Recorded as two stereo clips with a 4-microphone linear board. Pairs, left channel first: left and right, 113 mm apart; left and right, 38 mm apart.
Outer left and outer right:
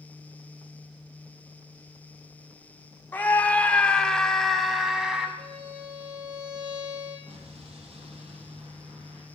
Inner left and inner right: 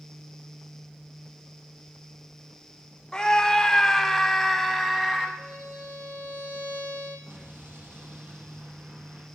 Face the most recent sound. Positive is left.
turn(degrees=-60)  # may be behind; listen again after turning